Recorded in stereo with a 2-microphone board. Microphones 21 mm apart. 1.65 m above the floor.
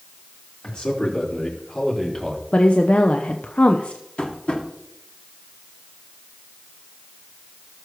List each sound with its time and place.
0.6 s a man speaking: 60° left (ahead or behind), 4.5 m; by 2.4 s 25° left (ahead or behind), 3.5 m
2.5 s a woman speaking: 80° left, 0.7 m
4.2 s tapping: 65° left (ahead or behind), 2 m